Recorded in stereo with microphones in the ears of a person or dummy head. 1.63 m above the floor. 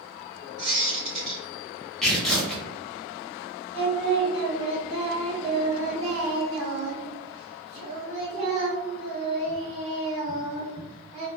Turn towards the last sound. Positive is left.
turn(degrees=-30)  # may be behind; listen again after turning